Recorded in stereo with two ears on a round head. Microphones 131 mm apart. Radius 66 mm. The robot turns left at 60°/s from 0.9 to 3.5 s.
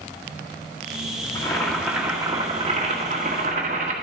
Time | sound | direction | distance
1.4 | boiling | 30° left | 1.8 m